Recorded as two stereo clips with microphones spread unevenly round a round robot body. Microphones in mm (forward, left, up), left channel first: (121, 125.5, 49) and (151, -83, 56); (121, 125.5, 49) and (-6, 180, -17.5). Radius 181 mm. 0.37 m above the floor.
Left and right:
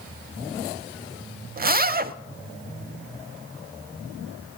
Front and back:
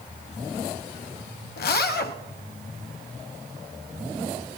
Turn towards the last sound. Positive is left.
turn(degrees=-30)